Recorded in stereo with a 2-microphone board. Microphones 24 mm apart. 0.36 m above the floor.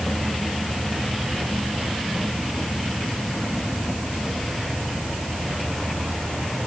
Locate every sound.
Only background noise.